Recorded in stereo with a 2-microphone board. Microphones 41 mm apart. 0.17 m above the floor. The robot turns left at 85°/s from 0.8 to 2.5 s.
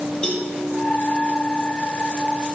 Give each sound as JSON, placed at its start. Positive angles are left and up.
{"t": 0.2, "sound": "a cowbell", "side_deg": 25, "distance_m": 4.0}